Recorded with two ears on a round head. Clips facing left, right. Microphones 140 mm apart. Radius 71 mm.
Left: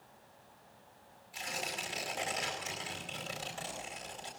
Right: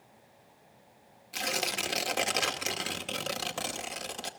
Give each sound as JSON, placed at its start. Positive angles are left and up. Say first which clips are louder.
{"t": 1.3, "sound": "tearing paper", "louder": "right 7 dB", "side_deg": -80, "distance_m": 2.0}